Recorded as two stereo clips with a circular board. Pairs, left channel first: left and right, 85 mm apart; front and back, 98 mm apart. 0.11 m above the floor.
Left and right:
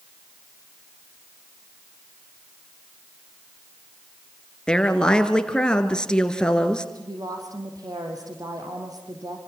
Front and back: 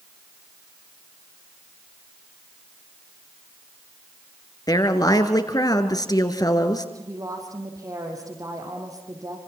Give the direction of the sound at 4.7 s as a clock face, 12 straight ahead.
12 o'clock.